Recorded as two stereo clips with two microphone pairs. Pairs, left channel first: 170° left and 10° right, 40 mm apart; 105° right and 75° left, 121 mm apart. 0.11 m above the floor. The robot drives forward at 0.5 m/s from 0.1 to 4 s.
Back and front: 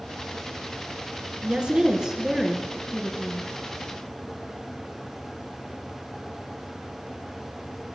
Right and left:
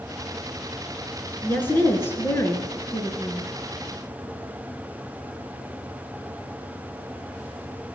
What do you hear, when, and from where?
1.4 s a woman speaking: 45° right, 1.7 m; by 3.5 s 120° right, 1.6 m